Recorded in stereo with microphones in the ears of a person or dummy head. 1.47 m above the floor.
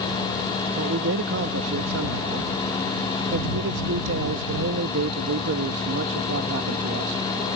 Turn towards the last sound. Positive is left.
turn(degrees=-75)  # may be behind; listen again after turning